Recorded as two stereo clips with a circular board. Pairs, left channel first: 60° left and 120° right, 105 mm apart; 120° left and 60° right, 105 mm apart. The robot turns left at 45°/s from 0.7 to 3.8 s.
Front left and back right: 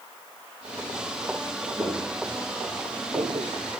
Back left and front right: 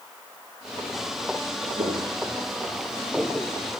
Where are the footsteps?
60° right, 3.5 m; by 3.5 s 175° right, 1.0 m.